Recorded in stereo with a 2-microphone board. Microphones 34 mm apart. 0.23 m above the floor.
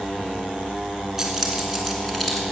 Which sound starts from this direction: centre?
Keys jangling, at 1.2 s.